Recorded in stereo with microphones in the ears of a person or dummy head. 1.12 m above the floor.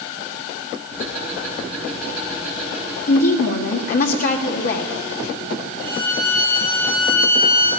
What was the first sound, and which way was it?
Ticking, 5° left (ahead or behind).